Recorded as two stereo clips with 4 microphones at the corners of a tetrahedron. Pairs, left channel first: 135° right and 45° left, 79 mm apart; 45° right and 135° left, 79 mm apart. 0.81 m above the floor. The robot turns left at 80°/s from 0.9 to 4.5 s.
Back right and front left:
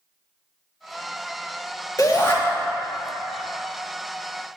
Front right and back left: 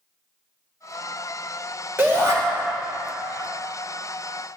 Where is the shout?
170° right, 1.8 m; by 2.4 s 165° left, 1.8 m.